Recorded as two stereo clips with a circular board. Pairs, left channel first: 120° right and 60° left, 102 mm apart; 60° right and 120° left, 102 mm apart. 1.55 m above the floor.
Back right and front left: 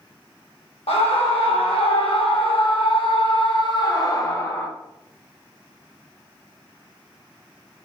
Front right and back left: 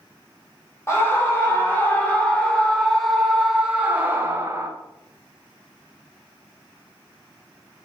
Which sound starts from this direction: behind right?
A scream, at 0.9 s.